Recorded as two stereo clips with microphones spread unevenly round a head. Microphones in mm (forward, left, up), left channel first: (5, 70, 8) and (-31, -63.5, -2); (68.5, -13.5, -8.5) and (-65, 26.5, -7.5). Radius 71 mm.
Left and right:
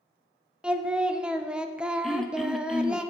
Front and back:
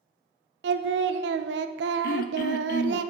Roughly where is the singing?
Behind.